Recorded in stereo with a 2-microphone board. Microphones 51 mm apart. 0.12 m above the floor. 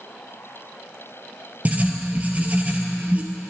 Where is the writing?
30° right (ahead or behind), 1.6 m.